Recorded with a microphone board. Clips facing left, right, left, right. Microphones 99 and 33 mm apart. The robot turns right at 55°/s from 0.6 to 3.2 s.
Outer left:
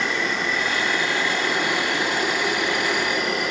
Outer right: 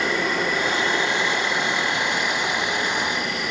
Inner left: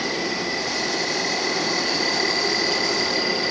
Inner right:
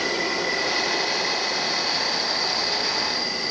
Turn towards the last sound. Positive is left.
turn(degrees=140)